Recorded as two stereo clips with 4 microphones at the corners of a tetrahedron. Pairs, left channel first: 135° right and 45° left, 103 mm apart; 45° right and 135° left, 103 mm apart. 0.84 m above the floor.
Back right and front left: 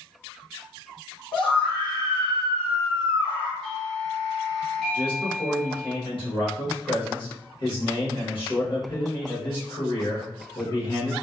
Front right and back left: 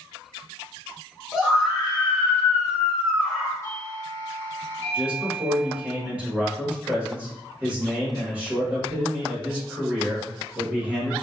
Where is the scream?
140° right, 1.0 m.